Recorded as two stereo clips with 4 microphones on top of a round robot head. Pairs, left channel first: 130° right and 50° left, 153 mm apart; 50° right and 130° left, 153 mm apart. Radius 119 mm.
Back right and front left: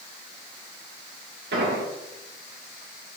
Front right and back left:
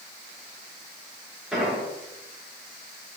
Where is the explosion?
40° left, 3.5 m.